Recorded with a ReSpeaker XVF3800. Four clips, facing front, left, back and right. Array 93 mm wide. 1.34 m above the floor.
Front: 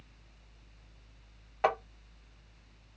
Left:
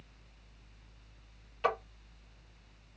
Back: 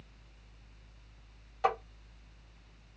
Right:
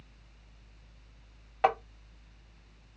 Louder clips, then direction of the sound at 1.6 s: Right 5 dB, front 1 dB; 65° right.